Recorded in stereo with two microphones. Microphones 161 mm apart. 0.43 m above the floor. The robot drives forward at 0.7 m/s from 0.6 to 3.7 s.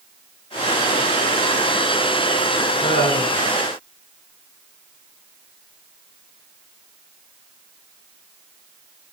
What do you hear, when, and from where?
2.8 s laughter: 60° left (ahead or behind), 5 m; by 3.4 s 65° left (ahead or behind), 5 m